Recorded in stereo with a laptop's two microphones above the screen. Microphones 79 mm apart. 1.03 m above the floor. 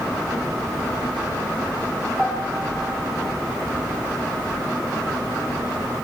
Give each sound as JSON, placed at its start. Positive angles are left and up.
{"t": 2.2, "sound": "a piano", "side_deg": 10, "distance_m": 7.5}